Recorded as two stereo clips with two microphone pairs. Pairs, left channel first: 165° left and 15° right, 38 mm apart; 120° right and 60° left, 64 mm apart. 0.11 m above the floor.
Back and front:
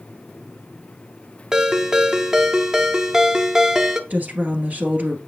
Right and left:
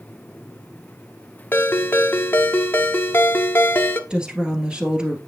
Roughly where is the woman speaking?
Ahead.